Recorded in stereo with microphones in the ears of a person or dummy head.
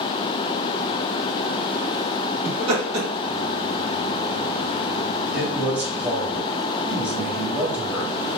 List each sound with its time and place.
2.5 s laughter: 25° right (ahead or behind), 2 m
5.3 s a man speaking: centre (ahead or behind), 2 m